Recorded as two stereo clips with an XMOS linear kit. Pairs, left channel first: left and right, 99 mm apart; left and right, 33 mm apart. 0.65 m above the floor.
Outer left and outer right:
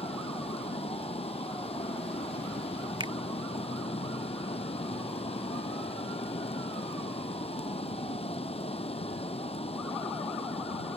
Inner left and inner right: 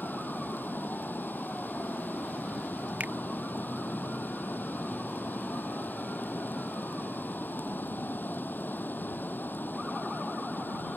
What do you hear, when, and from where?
0.0 s running water: 85° left
3.0 s a finger snap: 55° right (ahead or behind)